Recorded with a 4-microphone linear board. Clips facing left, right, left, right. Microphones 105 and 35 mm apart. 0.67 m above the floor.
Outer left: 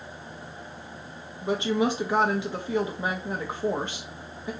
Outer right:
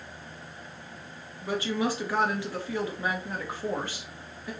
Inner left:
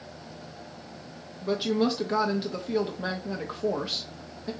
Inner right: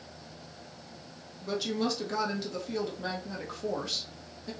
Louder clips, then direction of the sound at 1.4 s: Outer left 4 dB, inner left 5 dB; 20° left (ahead or behind).